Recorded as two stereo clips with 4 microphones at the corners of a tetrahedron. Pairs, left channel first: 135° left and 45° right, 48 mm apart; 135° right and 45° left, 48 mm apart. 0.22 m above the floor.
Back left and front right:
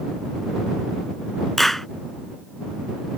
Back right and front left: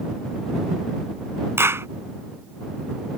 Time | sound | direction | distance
1.6 | a clap | 45° left | ?